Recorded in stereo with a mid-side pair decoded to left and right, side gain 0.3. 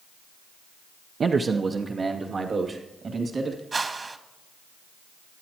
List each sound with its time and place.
1.2 s a man speaking: 60° right, 0.6 m; by 3.6 s 65° right, 2.5 m
3.7 s a whoosh: 45° right, 1.5 m